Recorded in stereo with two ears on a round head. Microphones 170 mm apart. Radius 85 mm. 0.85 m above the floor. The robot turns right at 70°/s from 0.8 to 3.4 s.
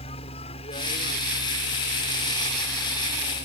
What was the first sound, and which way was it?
A helicopter, 35° left.